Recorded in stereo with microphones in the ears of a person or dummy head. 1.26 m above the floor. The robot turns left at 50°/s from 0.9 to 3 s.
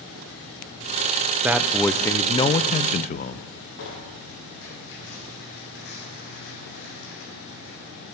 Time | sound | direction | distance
1.4 | a man speaking | 165° right | 0.5 m
3.8 | tearing paper | 55° left (ahead or behind) | 7.5 m